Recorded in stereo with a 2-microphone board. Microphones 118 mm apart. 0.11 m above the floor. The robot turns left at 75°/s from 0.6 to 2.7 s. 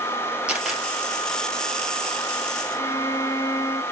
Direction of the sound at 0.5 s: 10° right (ahead or behind).